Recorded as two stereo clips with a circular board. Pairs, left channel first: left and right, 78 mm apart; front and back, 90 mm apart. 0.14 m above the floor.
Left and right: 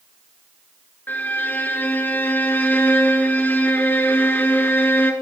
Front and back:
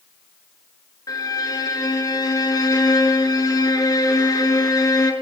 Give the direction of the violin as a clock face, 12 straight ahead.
11 o'clock.